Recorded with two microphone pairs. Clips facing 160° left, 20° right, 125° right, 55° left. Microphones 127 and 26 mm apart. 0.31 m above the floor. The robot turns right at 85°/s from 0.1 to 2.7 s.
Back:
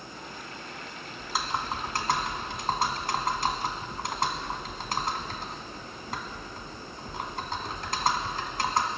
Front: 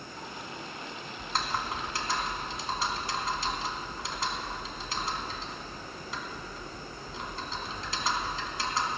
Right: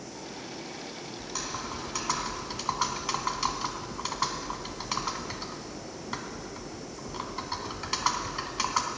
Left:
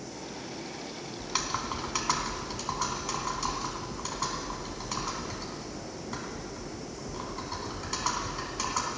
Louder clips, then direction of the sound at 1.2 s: Back 1 dB, left 4 dB; 60° left.